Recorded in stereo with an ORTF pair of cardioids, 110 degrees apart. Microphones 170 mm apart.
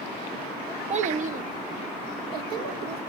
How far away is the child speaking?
About 1.0 m.